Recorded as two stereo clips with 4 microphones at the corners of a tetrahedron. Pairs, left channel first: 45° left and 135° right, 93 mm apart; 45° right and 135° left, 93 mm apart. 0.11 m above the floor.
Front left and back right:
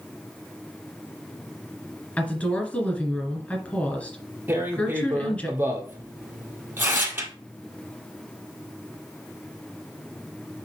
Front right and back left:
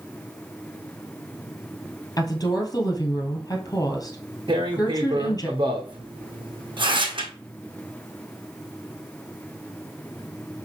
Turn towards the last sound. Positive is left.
turn(degrees=160)